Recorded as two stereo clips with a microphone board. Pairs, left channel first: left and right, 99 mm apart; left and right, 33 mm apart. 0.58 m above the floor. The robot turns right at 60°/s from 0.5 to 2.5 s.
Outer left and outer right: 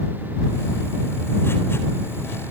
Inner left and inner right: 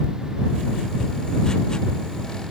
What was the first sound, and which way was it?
Only background noise.